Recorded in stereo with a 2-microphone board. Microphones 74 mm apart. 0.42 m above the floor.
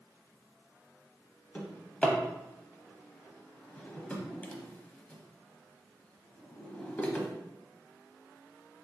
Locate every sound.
1.6 s a drawer: 20° left (ahead or behind), 0.6 m